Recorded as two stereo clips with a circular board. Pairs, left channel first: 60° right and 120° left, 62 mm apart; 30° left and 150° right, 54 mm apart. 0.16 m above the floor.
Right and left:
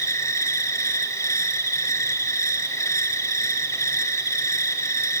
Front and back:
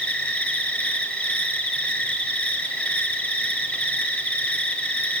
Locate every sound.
0.0 s an insect: 35° right, 2 m